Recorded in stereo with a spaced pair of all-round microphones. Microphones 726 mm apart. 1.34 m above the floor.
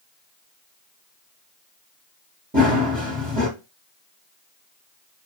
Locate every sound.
2.5 s running footsteps: 10° right (ahead or behind), 1.6 m